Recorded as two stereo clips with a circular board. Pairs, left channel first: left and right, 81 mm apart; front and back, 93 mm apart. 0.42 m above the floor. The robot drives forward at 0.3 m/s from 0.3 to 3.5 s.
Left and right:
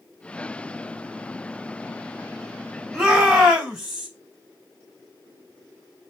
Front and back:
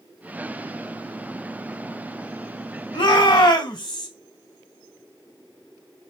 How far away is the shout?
About 2.5 m.